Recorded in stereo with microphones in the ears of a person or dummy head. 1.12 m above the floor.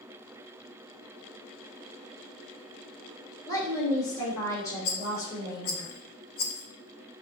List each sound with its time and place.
3.5 s a woman speaking: 20° left (ahead or behind), 2.5 m
4.8 s a rattle: 50° left (ahead or behind), 0.5 m